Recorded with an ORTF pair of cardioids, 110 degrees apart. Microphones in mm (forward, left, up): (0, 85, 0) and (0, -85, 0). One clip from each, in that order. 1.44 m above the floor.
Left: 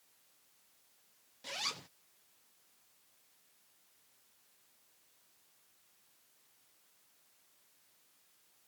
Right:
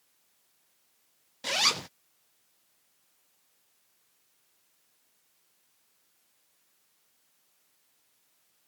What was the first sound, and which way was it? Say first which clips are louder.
A zipper: right 13 dB; 65° right.